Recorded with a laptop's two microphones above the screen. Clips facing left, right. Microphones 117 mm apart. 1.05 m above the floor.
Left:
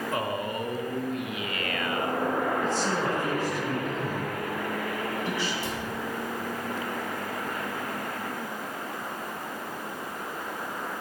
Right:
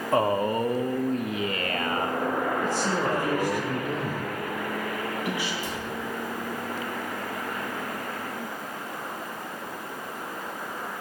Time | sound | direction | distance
0.1 | a man speaking | 35° right (ahead or behind) | 0.8 m
2.6 | a man speaking | 15° right (ahead or behind) | 1.2 m
5.6 | a cupboard door | 80° left | 4.5 m